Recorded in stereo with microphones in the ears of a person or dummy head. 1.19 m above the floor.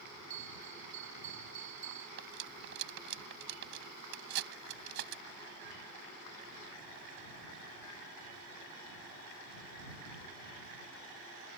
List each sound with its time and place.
0.3 s a bell: 45° right (ahead or behind)
2.2 s cutlery clinking: 65° right (ahead or behind)